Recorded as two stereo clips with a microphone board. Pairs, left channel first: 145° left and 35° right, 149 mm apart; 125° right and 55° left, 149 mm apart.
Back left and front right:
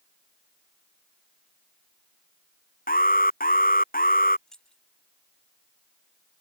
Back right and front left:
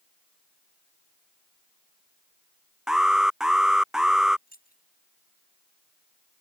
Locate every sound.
2.9 s an alarm: 140° left
4.5 s keys jangling: 130° right